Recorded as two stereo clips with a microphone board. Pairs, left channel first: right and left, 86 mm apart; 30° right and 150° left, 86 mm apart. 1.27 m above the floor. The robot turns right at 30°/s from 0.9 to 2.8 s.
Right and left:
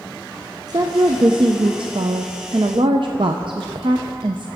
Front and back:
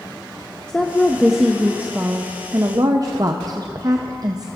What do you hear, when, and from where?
0.7 s a woman speaking: 50° left, 0.5 m; by 4.5 s 110° left, 0.5 m